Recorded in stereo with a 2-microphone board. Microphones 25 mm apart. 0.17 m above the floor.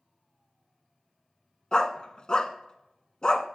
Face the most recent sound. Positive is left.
turn(degrees=35)  # may be behind; listen again after turning